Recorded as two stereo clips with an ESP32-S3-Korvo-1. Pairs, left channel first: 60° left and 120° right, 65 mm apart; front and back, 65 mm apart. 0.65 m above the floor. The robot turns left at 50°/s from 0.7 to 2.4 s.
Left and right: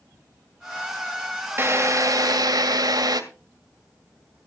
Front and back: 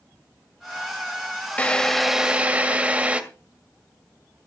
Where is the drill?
70° right, 1.9 m; by 3.2 s 110° right, 1.9 m.